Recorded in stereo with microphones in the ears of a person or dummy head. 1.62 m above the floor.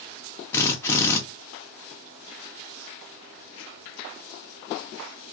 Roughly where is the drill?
Centre.